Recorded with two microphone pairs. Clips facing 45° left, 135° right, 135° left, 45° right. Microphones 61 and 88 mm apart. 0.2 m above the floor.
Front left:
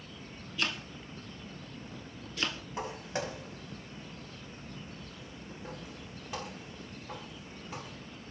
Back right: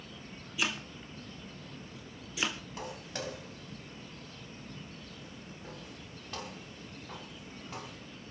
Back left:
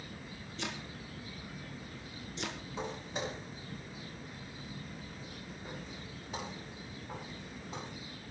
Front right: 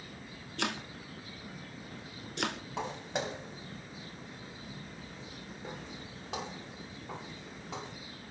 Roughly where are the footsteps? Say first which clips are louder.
Front left 9 dB, front right 3 dB; ahead right.